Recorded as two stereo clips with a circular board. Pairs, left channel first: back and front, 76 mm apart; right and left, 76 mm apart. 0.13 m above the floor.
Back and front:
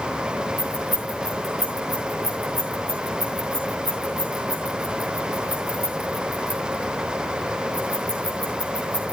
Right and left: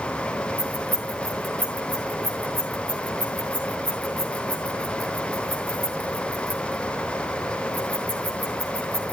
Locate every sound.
0.6 s keys jangling: 20° right, 9 m